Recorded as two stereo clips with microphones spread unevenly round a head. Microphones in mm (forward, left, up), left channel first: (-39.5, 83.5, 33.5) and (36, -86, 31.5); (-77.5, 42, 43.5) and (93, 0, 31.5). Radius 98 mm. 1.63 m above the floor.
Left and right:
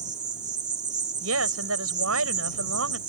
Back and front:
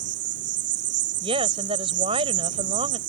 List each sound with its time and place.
0.0 s an insect: straight ahead
1.2 s a woman speaking: 80° right